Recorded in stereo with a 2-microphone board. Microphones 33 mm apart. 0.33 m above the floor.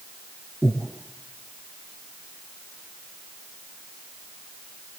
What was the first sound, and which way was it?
Breathing, 35° right (ahead or behind).